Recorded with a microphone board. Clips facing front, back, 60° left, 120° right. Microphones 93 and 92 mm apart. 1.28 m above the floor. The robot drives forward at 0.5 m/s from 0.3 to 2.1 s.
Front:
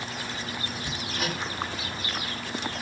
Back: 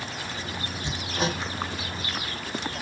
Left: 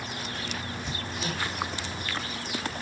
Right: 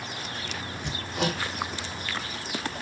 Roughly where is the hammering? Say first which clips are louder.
Back 5 dB, right 9 dB; behind right.